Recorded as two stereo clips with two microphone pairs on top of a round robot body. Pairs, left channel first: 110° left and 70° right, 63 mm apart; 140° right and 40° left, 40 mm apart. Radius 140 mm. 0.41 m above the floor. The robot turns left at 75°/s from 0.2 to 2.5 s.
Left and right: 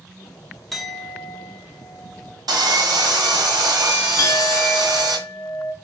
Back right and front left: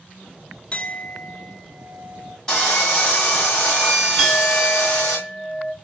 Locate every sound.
0.7 s a clink: 165° right, 0.8 m; by 2.4 s 70° left, 0.8 m
2.5 s sawing: 65° right, 1.8 m
4.2 s a clink: 135° left, 1.2 m